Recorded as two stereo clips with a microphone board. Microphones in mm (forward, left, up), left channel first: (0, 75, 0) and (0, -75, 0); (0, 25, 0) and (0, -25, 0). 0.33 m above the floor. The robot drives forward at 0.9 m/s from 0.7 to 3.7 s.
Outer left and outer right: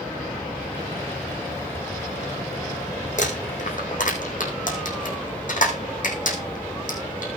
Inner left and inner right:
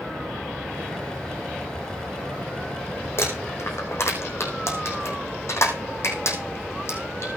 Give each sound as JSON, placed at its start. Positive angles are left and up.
{"t": 3.2, "sound": "crumpling", "side_deg": 55, "distance_m": 4.5}